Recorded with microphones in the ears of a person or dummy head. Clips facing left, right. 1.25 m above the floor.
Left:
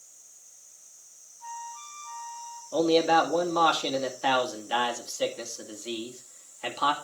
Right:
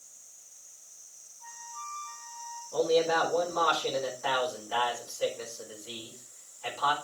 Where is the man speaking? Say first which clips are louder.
Left 3 dB; 80° left, 2.5 m.